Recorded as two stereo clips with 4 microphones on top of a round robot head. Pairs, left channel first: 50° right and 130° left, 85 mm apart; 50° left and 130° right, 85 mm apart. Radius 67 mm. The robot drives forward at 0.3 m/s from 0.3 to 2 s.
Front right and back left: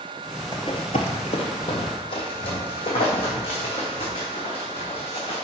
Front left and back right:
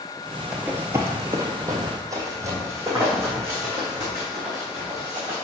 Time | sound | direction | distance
0.5 | running footsteps | 60° right | 0.6 m